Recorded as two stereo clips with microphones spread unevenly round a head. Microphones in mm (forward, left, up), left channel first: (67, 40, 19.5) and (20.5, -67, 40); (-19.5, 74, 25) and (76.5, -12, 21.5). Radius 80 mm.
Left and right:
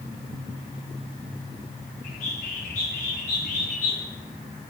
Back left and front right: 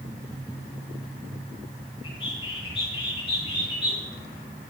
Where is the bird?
90° left, 10 m.